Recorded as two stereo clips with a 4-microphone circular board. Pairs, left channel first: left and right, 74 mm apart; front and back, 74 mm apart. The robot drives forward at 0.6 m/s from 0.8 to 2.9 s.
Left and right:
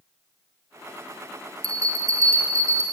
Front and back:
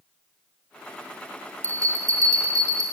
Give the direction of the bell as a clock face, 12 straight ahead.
4 o'clock.